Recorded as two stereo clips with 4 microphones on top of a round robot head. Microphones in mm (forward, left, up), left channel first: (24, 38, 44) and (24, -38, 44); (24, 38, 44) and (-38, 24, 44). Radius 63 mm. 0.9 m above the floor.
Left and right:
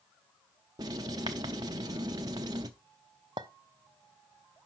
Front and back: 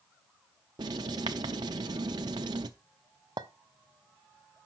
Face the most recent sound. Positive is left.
turn(degrees=-130)